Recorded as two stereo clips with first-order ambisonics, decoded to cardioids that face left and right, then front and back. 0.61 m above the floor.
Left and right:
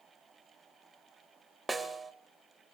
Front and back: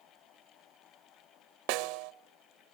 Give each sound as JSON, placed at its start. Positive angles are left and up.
{"t": 1.7, "sound": "a snare drum", "azimuth_deg": -170, "distance_m": 0.9}